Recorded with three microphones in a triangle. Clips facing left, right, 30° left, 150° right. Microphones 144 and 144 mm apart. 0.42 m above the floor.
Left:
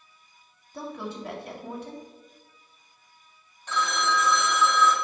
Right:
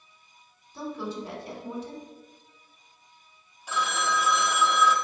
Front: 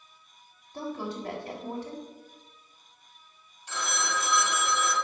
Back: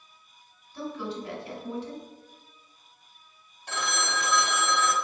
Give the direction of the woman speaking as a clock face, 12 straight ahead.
10 o'clock.